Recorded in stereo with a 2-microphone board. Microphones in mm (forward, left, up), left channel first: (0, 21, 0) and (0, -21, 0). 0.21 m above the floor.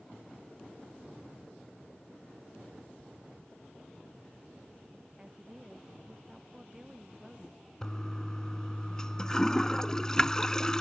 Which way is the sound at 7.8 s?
15° left (ahead or behind).